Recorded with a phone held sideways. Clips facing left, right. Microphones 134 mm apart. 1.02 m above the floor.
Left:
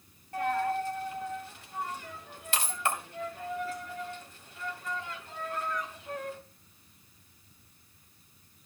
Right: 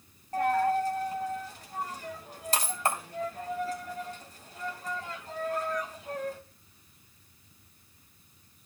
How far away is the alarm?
No alarm in this recording.